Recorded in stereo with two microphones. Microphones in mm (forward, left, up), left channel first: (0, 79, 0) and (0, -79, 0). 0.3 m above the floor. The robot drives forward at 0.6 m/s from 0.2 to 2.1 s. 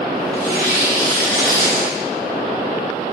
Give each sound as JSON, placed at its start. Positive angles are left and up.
{"t": 0.3, "sound": "tearing paper", "side_deg": -75, "distance_m": 5.0}